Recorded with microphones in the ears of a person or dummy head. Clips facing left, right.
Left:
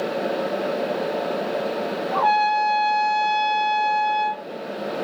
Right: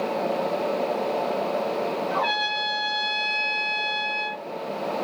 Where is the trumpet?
40° right (ahead or behind), 1.0 m.